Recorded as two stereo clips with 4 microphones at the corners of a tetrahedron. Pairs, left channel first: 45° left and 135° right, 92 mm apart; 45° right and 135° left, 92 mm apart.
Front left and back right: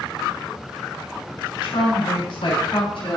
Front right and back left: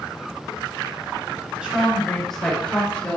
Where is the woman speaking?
55° left, 3.5 m; by 3.2 s 20° left, 3.5 m.